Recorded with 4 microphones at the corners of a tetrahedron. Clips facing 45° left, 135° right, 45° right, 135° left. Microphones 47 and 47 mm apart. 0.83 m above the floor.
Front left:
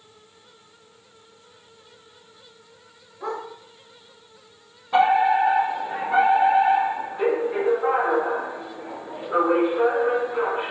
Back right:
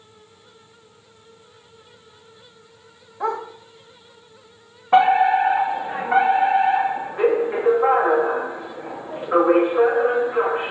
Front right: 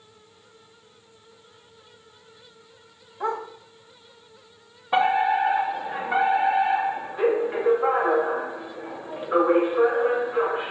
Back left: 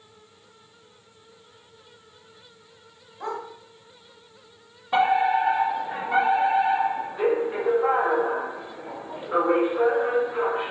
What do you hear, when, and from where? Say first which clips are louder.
3.2 s a dog barking: back right 6 dB, front right 4 dB; 115° right, 2.5 m
4.9 s a fire alarm: back right 3 dB, even; 120° right, 2.5 m